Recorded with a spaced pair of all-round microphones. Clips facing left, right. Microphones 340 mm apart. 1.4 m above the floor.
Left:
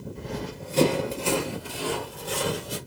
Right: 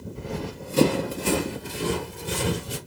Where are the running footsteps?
10° right (ahead or behind), 1.5 m; by 2.8 s 35° right (ahead or behind), 1.7 m.